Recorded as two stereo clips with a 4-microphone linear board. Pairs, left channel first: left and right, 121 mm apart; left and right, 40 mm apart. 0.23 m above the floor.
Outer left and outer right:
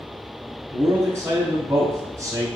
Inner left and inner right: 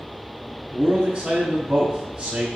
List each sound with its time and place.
0.7 s a man speaking: 25° right (ahead or behind), 1.1 m